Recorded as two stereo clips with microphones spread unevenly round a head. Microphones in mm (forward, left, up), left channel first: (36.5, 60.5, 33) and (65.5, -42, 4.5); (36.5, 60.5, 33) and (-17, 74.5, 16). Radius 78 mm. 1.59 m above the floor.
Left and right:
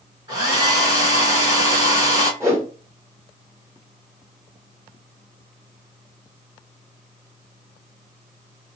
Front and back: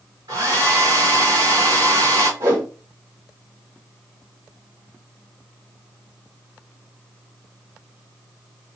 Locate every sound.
0.3 s a hair dryer: 155° right, 3 m
2.4 s a whoosh: 150° right, 1.7 m